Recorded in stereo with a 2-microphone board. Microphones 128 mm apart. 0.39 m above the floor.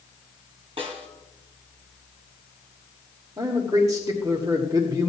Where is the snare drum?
45° right (ahead or behind), 2.5 m.